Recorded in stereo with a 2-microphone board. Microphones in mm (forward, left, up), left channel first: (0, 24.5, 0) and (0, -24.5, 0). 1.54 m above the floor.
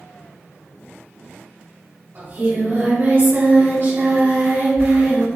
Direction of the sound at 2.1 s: 55° right (ahead or behind).